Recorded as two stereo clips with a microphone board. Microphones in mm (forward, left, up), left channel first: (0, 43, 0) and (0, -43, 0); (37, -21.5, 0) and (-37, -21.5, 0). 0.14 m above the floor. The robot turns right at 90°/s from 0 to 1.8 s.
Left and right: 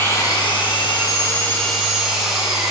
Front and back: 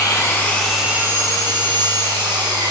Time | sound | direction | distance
0.0 | an engine running | 25° left | 3.5 m